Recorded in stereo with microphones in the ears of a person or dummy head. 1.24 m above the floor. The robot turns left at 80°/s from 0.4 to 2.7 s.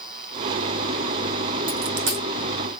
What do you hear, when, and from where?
1.7 s a dropped coin: 45° right (ahead or behind), 4 m; by 2.2 s 75° right (ahead or behind), 4 m